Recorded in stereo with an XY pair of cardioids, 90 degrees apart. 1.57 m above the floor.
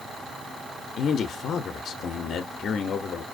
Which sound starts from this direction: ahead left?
A man speaking, at 1.0 s.